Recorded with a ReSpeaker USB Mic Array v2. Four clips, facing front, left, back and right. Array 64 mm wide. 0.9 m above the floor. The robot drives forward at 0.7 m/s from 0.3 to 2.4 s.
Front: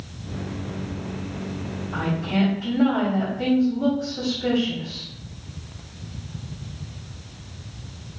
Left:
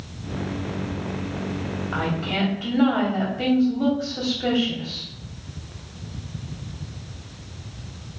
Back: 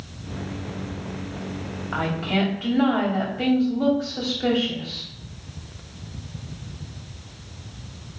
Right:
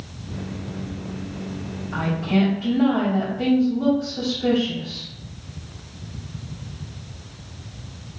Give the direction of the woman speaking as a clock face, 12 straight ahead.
7 o'clock.